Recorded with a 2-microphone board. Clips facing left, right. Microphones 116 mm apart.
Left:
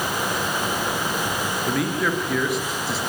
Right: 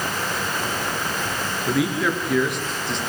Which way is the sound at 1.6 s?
Centre (ahead or behind).